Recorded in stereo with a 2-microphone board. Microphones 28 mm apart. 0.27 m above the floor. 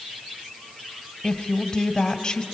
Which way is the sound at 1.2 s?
25° left (ahead or behind).